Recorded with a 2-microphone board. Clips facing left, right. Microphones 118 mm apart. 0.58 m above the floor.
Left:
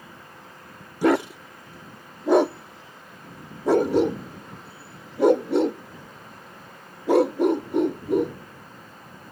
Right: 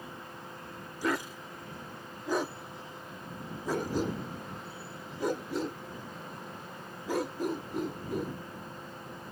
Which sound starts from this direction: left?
A dog barking, at 1.0 s.